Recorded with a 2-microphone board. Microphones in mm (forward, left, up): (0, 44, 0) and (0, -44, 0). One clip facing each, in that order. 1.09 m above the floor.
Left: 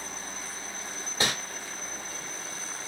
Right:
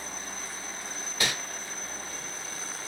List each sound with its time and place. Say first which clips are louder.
1.2 s crumpling: left 2 dB; 30° left (ahead or behind), 1.2 m